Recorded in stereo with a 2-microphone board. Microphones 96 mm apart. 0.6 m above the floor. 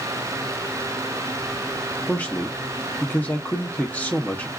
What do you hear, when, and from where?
2.1 s a man speaking: 15° left (ahead or behind), 0.6 m